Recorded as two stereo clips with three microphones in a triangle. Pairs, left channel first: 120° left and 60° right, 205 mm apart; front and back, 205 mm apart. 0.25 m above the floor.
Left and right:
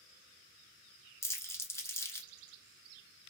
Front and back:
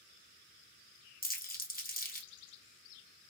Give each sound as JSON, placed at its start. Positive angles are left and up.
{"t": 1.2, "sound": "crumpling", "azimuth_deg": 40, "distance_m": 0.8}